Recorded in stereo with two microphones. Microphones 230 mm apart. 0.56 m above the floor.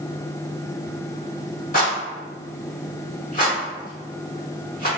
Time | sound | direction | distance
1.7 | a rattle | 35° left (ahead or behind) | 1.5 m